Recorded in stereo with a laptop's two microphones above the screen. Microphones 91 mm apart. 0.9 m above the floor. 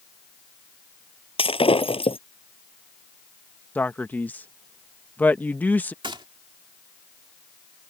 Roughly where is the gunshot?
Right.